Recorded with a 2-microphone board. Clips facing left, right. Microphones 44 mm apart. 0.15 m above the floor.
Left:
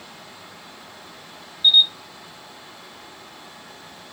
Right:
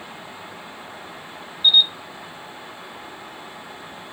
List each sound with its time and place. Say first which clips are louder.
1.6 s a camera shutter: even; 10° left (ahead or behind), 1.6 m